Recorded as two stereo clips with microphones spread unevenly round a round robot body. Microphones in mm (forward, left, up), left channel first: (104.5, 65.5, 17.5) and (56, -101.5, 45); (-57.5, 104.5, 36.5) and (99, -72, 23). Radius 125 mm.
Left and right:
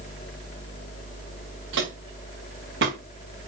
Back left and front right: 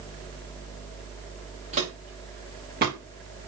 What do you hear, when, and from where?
1.7 s footsteps: 115° right, 4 m; by 3.0 s 105° right, 3.5 m